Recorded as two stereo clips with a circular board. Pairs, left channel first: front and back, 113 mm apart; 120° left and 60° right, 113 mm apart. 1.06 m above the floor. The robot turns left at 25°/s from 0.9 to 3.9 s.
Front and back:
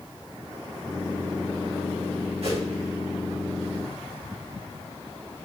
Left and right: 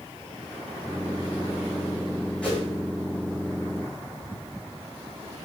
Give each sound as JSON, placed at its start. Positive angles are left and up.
{"t": 2.4, "sound": "a whoosh", "azimuth_deg": -160, "distance_m": 4.0}